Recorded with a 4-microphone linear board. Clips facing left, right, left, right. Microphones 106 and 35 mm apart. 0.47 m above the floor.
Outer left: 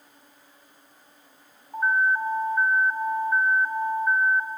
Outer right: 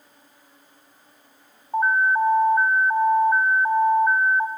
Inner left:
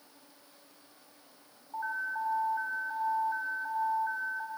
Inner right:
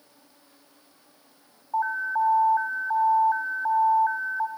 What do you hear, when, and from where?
1.7 s an alarm: 35° right (ahead or behind), 0.6 m